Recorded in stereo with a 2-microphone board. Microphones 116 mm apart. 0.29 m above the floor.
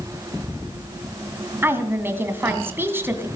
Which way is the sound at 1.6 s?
20° right (ahead or behind).